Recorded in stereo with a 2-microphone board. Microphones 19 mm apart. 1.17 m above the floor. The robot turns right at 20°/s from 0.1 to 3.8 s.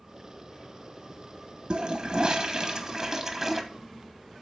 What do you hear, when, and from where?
1.7 s a toilet flushing: 55° right, 1.0 m; by 3.6 s 15° right, 1.0 m